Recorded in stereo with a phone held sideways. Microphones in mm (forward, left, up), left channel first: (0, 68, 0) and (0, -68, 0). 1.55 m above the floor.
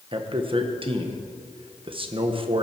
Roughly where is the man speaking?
Right.